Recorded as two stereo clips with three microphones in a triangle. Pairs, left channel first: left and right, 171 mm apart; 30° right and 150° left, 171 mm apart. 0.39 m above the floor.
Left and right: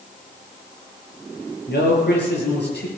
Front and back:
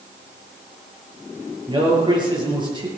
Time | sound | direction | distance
1.7 | a man speaking | 85° left | 6.5 m